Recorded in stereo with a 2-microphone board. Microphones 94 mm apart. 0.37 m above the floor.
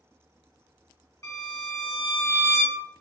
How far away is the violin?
About 1.4 m.